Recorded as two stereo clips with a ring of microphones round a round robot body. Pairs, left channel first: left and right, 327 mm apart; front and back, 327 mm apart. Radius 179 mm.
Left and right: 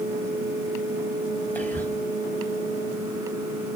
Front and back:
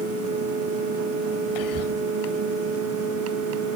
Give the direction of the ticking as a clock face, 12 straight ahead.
No ticking in this recording.